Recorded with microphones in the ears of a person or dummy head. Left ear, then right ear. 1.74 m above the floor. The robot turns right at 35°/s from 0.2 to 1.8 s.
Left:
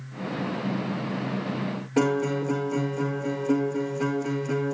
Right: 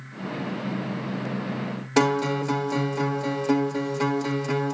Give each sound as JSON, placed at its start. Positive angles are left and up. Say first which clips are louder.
{"t": 2.0, "sound": "a guitar", "louder": "right 2 dB", "side_deg": -60, "distance_m": 1.6}